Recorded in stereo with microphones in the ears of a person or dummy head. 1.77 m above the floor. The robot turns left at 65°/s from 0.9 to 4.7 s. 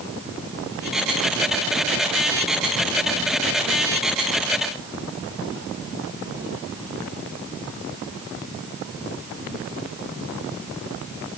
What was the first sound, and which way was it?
Only background noise.